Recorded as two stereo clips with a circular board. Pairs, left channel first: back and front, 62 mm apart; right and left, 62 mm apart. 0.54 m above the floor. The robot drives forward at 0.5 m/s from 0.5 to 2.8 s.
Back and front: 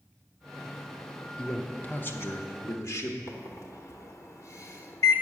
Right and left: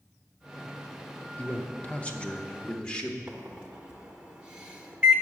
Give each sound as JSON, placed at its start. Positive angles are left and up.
{"t": 1.4, "sound": "a man speaking", "azimuth_deg": -115, "distance_m": 0.7}
{"t": 3.3, "sound": "a microwave", "azimuth_deg": 165, "distance_m": 0.9}